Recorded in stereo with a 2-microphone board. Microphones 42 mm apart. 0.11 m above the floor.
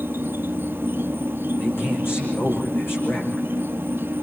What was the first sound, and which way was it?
An insect, 65° right (ahead or behind).